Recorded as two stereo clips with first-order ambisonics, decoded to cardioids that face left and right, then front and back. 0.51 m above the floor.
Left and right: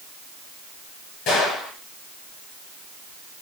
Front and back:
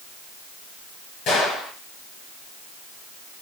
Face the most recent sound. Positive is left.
turn(degrees=50)